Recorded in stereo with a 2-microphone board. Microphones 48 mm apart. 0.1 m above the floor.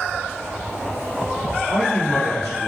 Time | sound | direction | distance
1.7 | a man speaking | 5° left (ahead or behind) | 1.9 m